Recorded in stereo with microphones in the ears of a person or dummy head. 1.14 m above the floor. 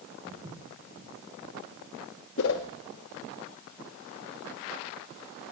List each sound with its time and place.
0.3 s footsteps: 25° right (ahead or behind), 4 m
2.4 s a whoosh: 65° left (ahead or behind), 1.1 m